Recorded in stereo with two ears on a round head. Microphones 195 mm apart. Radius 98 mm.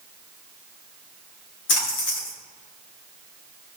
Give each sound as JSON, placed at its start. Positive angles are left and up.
{"t": 1.7, "sound": "a splash", "side_deg": 80, "distance_m": 4.0}